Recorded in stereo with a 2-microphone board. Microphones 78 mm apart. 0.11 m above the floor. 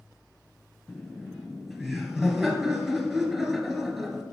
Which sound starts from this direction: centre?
Laughter, at 0.9 s.